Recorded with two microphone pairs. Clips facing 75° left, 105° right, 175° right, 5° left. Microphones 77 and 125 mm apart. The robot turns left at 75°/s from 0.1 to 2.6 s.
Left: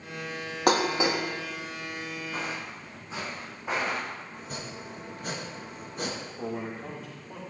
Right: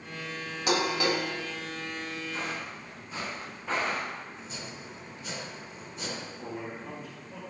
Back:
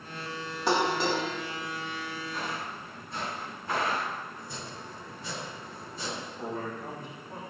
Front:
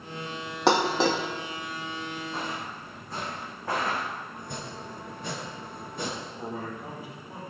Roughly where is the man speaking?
Left.